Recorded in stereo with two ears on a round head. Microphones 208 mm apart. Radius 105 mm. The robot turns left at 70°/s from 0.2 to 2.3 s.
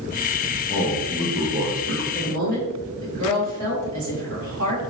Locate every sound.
0.7 s a man speaking: 35° left, 0.7 m; by 2.0 s 60° right, 0.7 m
2.1 s a woman speaking: 50° right (ahead or behind), 2.0 m; by 4.8 s 60° right (ahead or behind), 2.0 m